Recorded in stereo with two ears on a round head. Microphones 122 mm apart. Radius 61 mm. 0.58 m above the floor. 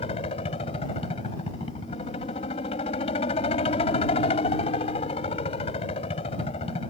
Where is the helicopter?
40° left (ahead or behind).